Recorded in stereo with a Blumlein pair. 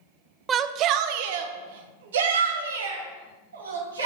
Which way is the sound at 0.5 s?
20° right.